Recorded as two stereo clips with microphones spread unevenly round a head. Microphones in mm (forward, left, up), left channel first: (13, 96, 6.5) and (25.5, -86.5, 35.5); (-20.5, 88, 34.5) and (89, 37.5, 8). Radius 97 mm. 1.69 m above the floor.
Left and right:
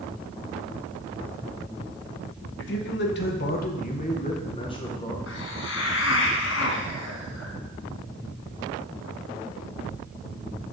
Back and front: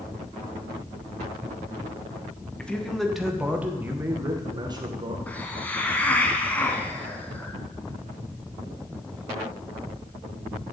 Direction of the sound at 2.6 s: 75° left.